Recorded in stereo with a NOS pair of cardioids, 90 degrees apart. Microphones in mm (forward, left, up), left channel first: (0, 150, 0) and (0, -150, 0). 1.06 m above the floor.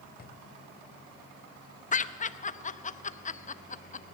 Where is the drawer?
30° left, 2 m.